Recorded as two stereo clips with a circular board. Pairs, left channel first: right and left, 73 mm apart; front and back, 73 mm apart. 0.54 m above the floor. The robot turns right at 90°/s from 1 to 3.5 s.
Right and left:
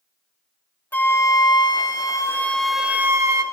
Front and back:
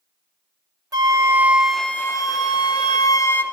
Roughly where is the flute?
Behind right.